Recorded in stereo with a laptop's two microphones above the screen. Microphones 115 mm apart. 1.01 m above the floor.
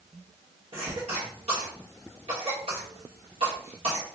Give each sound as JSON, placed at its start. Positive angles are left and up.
{"t": 0.7, "sound": "a cough", "side_deg": -60, "distance_m": 1.6}